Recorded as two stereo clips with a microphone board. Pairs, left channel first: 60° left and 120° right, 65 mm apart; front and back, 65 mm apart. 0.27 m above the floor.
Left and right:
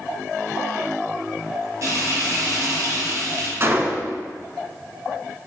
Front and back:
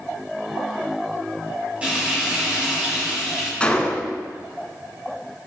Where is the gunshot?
70° right, 0.9 m.